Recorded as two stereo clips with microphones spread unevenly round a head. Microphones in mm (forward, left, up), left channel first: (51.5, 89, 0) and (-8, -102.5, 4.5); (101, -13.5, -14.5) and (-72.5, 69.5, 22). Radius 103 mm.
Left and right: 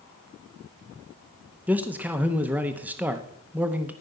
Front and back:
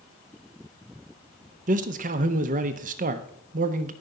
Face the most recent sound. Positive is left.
turn(degrees=175)